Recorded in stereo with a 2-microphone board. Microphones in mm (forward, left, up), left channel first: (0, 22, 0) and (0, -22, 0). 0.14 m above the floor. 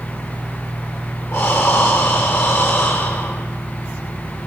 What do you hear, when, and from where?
1.3 s breathing: 70° left (ahead or behind), 4.5 m